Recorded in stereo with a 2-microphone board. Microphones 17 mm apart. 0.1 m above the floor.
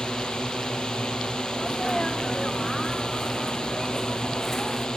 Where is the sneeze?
25° left (ahead or behind).